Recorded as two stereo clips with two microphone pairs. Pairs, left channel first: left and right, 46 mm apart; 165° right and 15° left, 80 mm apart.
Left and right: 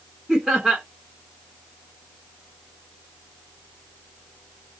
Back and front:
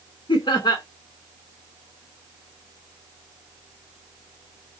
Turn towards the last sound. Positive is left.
turn(degrees=-165)